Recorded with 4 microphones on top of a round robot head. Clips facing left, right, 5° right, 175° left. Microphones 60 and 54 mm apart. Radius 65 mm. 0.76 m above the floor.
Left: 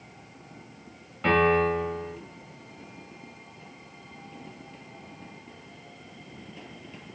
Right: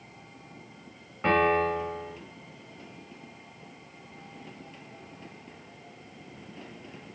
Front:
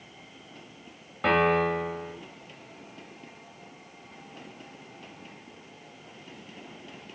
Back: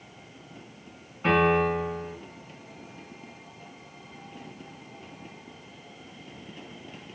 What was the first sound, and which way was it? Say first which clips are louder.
A piano: left 2 dB, back 1 dB; 20° right.